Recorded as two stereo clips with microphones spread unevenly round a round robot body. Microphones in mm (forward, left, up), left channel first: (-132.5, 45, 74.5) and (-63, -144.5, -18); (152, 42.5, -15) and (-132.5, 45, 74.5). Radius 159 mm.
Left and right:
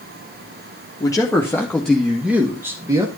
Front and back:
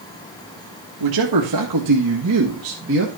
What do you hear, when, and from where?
1.0 s a man speaking: 165° right, 1.8 m; by 3.1 s 120° right, 1.7 m